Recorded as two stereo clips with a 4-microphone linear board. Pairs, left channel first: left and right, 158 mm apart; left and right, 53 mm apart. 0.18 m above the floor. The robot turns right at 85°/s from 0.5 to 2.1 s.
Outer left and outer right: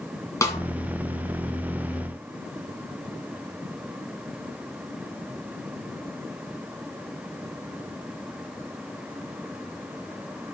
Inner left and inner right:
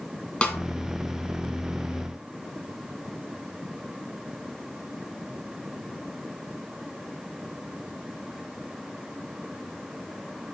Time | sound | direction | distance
0.4 | a snare drum | 20° left (ahead or behind) | 1.8 m